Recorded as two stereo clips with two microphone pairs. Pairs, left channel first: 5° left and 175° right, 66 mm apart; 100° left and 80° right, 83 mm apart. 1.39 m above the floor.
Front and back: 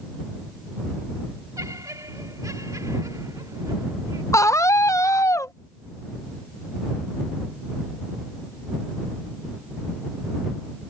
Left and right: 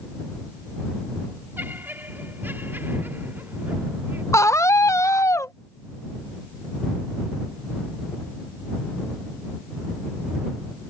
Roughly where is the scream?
Ahead left.